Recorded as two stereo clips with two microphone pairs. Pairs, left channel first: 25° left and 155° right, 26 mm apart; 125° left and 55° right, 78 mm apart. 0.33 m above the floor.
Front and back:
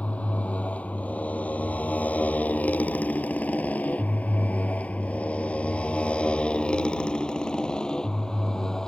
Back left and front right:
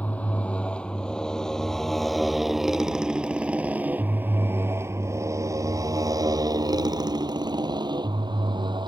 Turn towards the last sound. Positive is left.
turn(degrees=-40)